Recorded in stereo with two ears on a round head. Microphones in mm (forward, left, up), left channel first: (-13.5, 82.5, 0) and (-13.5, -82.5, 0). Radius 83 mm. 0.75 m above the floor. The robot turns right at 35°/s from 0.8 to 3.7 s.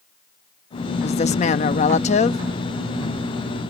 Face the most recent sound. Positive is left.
turn(degrees=160)